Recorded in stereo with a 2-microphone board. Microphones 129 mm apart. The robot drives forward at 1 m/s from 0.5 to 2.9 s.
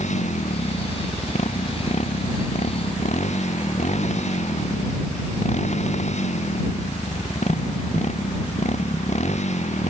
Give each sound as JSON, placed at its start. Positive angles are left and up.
{"t": 0.0, "sound": "a motorcycle", "side_deg": 65}